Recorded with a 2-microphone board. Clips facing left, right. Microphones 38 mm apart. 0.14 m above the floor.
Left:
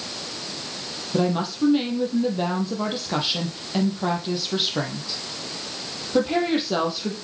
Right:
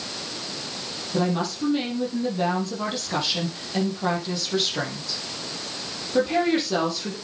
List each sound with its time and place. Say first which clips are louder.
1.1 s a woman speaking: left 2 dB; 20° left (ahead or behind), 4 m